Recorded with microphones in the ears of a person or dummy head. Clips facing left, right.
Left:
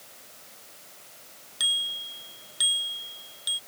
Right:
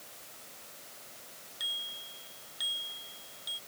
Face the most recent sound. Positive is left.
turn(degrees=85)